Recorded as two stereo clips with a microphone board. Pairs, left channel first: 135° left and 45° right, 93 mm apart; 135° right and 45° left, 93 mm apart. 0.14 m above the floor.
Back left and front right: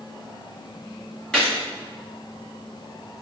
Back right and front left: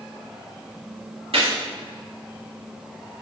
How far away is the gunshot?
About 2 m.